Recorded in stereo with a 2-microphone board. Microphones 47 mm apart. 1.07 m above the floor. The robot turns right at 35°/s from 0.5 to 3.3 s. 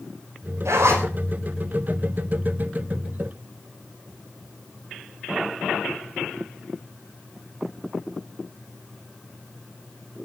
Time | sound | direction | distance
0.7 | a zipper | 75° right (ahead or behind) | 5 m